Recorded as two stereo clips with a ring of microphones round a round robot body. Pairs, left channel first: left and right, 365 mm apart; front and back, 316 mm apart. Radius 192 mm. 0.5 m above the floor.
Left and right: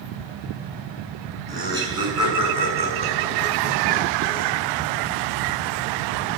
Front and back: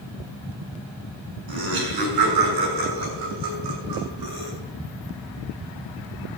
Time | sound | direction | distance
1.5 | laughter | 170° right | 7 m